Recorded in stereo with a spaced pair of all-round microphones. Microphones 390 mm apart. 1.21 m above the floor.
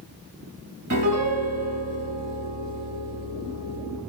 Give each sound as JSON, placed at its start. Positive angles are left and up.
{"t": 0.9, "sound": "a piano", "side_deg": -45, "distance_m": 2.5}